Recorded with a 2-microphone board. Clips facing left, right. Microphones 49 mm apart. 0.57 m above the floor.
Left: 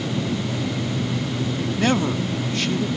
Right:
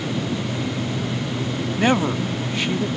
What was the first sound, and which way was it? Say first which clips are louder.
A man speaking: right 2 dB; 20° right (ahead or behind).